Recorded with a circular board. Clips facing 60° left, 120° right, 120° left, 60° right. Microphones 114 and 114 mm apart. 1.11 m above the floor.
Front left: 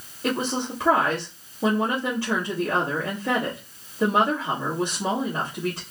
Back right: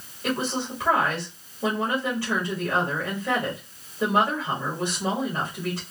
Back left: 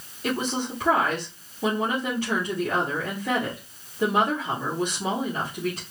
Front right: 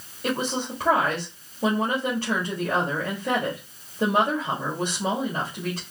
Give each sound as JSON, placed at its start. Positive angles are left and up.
{"t": 0.2, "sound": "a woman speaking", "azimuth_deg": -10, "distance_m": 2.5}